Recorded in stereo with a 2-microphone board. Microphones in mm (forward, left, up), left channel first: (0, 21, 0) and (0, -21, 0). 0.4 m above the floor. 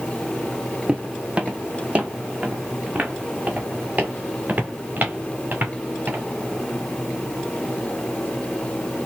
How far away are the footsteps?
About 0.9 m.